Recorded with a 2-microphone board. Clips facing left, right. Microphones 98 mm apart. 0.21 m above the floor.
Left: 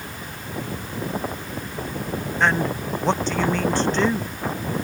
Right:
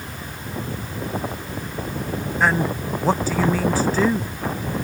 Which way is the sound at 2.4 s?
5° right (ahead or behind).